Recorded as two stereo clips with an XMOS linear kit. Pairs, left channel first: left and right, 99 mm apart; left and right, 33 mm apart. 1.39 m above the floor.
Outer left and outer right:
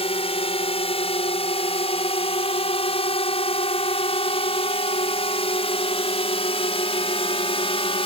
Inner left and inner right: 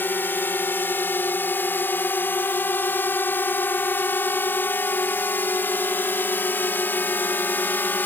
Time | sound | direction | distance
0.0 | a drone | 75° left (ahead or behind) | ?